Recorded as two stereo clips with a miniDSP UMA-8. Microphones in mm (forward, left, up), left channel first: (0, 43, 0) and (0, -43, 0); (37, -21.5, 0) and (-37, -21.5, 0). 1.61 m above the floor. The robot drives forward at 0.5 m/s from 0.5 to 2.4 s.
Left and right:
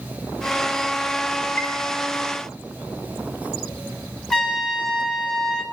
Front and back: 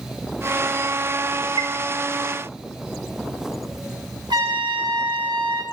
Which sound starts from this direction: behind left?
A chime, at 1.6 s.